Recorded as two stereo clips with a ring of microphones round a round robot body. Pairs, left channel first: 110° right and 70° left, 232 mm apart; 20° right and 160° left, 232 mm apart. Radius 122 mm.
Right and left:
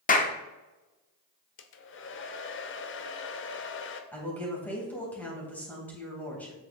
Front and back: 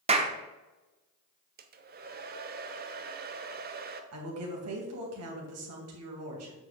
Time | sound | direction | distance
0.1 | a clap | 150° right | 1.1 m
1.6 | a hair dryer | 150° right | 0.8 m
4.1 | a woman speaking | 165° left | 3 m